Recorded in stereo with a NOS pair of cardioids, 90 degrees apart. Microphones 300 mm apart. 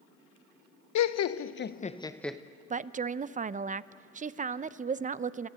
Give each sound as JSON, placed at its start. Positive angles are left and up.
{"t": 0.9, "sound": "laughter", "azimuth_deg": 70, "distance_m": 1.0}
{"t": 2.7, "sound": "a woman speaking", "azimuth_deg": -25, "distance_m": 0.6}